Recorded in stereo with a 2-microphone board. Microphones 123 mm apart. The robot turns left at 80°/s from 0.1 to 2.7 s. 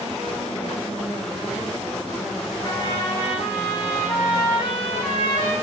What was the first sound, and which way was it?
A trumpet, 40° left (ahead or behind).